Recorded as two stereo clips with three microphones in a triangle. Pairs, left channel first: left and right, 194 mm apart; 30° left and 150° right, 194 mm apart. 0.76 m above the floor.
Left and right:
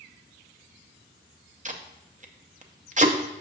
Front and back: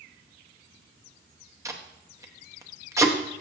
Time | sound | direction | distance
1.6 | tape being pulled | 80° right | 0.7 m